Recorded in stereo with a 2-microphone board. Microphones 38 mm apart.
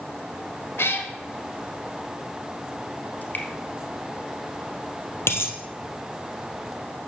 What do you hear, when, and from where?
0.8 s a cat meowing: 75° left (ahead or behind), 1.2 m
3.2 s dripping: 40° left (ahead or behind), 2.5 m
5.3 s a dropped coin: 70° left (ahead or behind), 1.7 m